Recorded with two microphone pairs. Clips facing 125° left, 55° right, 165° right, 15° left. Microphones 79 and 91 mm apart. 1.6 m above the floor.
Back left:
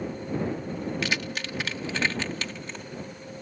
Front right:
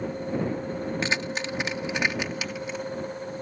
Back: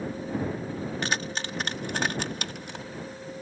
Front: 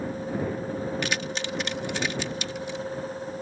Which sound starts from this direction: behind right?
Keys jangling, at 1.0 s.